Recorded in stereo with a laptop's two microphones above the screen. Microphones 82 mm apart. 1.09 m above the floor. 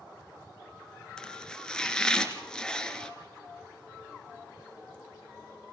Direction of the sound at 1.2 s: 10° left (ahead or behind).